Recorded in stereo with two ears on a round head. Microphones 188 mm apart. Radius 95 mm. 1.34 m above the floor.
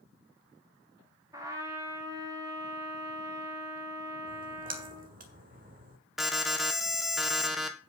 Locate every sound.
1.3 s a trumpet: 15° right (ahead or behind), 2 m
4.3 s a splash: 40° right (ahead or behind), 1.8 m
6.2 s an alarm: centre (ahead or behind), 1.4 m